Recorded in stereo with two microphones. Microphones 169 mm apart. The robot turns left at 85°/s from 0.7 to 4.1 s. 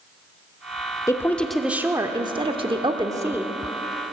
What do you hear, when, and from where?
1.1 s a woman speaking: 20° left (ahead or behind), 1.0 m; by 3.5 s 5° right (ahead or behind), 1.0 m